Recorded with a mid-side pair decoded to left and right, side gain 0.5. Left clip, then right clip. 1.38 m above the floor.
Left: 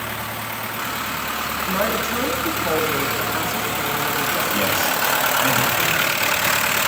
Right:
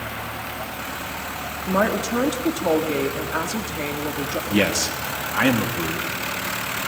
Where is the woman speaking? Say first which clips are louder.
Right 2 dB; 40° right, 3.5 m.